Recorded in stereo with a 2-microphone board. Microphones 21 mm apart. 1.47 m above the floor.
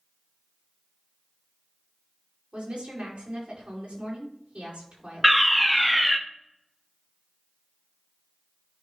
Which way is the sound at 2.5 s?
85° right.